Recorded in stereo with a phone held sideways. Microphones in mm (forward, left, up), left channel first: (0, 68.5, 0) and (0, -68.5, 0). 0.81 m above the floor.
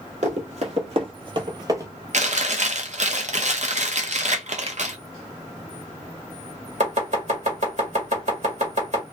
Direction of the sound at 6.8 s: 55° right (ahead or behind).